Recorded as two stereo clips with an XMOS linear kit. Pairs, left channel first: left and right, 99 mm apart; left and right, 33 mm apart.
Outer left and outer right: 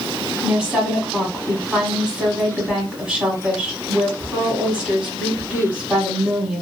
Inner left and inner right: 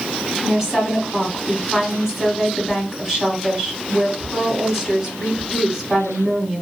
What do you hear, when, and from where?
0.4 s a woman speaking: 10° right (ahead or behind), 1.3 m